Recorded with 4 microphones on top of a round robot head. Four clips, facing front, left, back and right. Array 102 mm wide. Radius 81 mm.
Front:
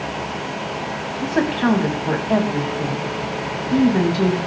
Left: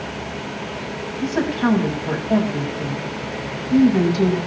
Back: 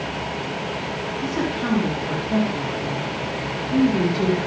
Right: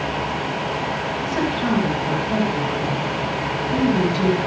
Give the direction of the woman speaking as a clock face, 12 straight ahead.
11 o'clock.